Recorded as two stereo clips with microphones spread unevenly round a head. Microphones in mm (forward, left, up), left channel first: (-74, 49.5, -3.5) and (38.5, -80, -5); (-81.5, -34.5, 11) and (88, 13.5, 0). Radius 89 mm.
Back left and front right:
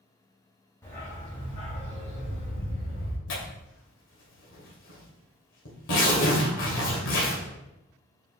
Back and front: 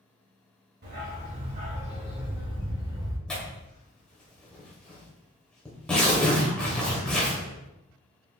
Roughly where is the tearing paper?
Left.